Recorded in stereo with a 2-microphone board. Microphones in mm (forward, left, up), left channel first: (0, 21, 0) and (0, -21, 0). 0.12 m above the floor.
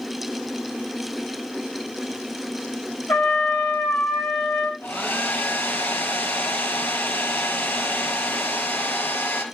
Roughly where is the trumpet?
Left.